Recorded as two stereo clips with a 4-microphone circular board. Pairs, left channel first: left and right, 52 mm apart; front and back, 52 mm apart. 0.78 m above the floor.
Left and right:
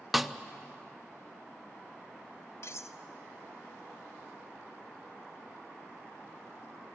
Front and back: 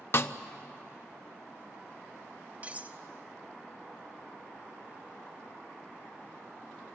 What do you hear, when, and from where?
0.1 s a snare drum: 5° right, 0.6 m
2.6 s cutlery clinking: 120° left, 0.7 m